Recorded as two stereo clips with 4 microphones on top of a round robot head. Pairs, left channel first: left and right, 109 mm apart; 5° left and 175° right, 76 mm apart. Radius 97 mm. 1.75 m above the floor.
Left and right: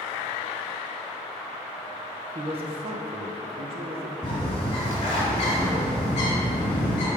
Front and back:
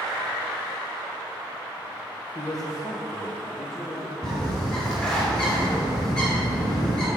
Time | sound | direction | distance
2.4 | a man speaking | 55° right | 0.6 m
4.2 | a bird | 75° left | 1.7 m